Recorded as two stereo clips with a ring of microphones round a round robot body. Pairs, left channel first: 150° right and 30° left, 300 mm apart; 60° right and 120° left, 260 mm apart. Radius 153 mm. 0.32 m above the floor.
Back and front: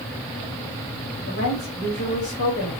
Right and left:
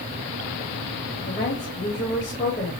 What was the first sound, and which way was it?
A woman speaking, 120° right.